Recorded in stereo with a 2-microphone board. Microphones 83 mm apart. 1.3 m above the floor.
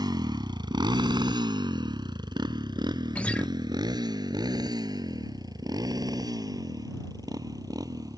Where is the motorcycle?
65° right (ahead or behind); by 8.2 s 55° right (ahead or behind).